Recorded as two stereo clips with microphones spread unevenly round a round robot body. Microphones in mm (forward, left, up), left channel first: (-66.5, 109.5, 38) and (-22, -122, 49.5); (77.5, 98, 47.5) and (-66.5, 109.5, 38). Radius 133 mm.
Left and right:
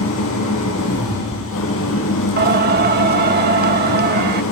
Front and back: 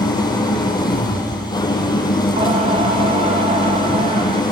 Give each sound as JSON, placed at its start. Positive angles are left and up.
{"t": 0.0, "sound": "an engine running", "azimuth_deg": 60, "distance_m": 3.0}
{"t": 2.4, "sound": "singing", "azimuth_deg": -130, "distance_m": 0.7}